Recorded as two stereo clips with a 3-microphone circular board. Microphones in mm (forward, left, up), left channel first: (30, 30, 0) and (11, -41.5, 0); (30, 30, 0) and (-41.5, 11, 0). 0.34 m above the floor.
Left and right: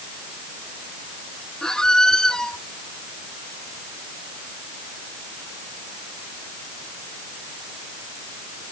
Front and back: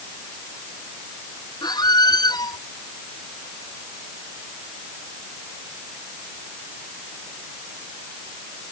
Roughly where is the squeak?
Ahead.